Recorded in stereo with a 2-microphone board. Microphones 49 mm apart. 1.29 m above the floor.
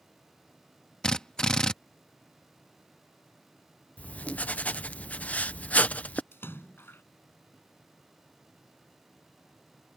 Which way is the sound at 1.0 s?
15° left (ahead or behind).